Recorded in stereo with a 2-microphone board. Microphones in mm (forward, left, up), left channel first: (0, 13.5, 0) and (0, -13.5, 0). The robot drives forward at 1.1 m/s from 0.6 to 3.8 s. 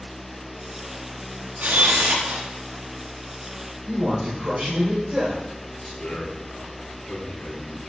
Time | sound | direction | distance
1.6 | a camera shutter | 80° right | 1.6 m
3.9 | a man speaking | 40° right (ahead or behind) | 5 m
6.0 | a man speaking | 50° left (ahead or behind) | 3 m